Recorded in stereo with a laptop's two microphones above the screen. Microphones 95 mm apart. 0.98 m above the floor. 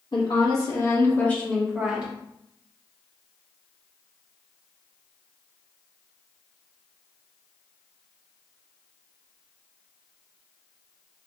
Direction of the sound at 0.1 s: 55° left (ahead or behind).